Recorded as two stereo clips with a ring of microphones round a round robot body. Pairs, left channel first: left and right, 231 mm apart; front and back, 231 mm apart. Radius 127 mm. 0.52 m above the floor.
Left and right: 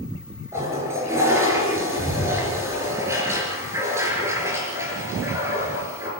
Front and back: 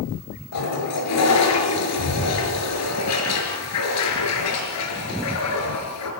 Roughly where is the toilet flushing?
Ahead.